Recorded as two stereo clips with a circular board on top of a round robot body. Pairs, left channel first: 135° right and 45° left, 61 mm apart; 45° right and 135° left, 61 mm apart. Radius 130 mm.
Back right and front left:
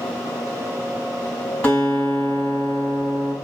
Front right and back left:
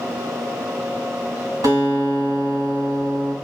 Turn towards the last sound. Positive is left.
turn(degrees=150)